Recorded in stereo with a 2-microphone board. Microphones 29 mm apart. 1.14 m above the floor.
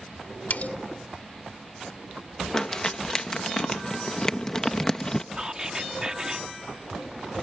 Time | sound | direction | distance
0.5 | cutlery clinking | 70° left (ahead or behind) | ?
2.5 | crumpling | 25° left (ahead or behind) | ?
5.3 | whispering | 25° right (ahead or behind) | ?